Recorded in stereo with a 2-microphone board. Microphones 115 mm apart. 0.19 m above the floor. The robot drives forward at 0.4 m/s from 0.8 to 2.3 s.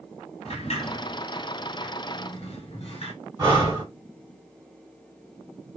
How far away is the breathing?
About 1.9 m.